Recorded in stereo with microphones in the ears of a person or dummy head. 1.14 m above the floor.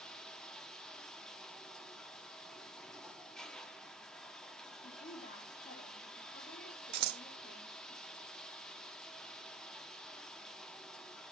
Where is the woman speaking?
40° left (ahead or behind), 4 m.